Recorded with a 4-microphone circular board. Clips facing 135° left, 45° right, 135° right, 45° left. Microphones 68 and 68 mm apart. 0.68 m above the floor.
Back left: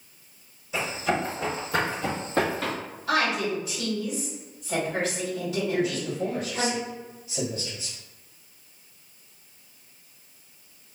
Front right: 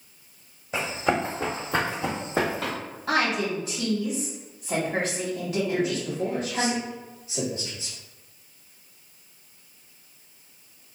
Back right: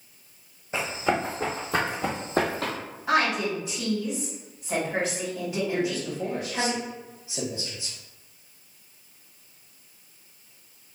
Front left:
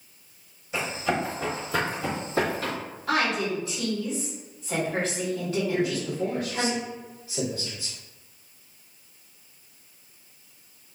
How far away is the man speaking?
About 1.7 m.